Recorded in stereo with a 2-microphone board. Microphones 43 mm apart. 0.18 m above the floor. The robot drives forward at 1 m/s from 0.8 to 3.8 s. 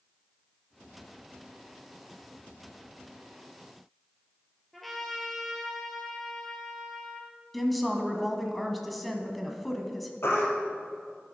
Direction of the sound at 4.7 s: 5° left (ahead or behind).